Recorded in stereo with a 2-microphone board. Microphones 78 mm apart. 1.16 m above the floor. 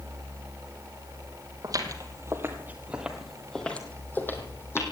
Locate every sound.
1.6 s footsteps: 50° right (ahead or behind), 2 m; by 4.8 s 35° left (ahead or behind), 2.5 m